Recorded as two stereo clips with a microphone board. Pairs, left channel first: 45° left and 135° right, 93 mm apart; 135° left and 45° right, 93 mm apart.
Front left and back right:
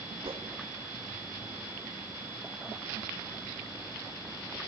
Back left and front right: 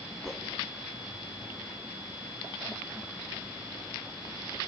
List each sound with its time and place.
0.2 s a whoosh: 140° right, 2 m